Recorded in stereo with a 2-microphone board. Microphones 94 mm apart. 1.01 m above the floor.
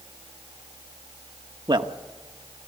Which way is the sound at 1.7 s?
55° right (ahead or behind).